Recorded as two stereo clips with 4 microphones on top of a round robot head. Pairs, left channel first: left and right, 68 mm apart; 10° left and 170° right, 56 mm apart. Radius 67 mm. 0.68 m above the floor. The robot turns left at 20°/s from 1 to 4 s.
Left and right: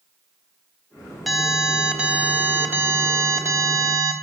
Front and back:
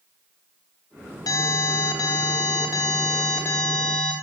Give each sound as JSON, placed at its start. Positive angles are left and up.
{"t": 1.3, "sound": "an alarm", "azimuth_deg": 0, "distance_m": 3.0}